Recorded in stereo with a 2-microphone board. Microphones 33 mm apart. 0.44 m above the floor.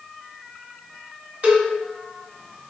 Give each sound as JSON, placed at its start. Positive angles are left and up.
{"t": 1.4, "sound": "a cowbell", "side_deg": -50, "distance_m": 1.5}